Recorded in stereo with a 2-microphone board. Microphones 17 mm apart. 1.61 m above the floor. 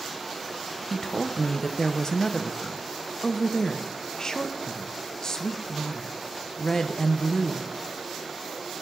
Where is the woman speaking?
35° left (ahead or behind), 0.7 m.